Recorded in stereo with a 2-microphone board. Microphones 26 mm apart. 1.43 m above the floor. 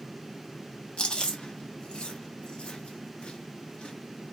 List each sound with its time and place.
1.0 s chewing: 45° left (ahead or behind), 0.9 m